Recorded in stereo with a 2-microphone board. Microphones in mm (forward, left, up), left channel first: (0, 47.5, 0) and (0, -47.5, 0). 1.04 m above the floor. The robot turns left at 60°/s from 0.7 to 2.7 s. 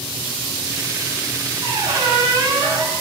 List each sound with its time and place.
1.6 s a squeak: 85° right, 2.5 m; by 3.0 s 150° right, 2.5 m